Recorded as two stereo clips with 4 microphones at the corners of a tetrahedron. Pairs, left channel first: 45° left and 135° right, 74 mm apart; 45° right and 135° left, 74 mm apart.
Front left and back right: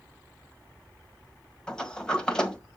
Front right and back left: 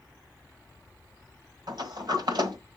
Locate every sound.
1.7 s a sliding door: 125° left, 1.7 m